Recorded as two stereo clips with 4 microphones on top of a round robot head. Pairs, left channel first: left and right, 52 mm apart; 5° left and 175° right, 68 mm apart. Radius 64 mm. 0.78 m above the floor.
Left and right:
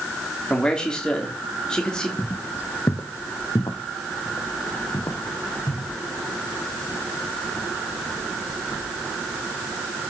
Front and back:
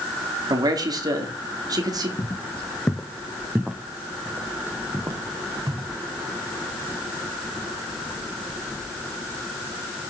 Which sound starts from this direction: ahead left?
Footsteps, at 2.2 s.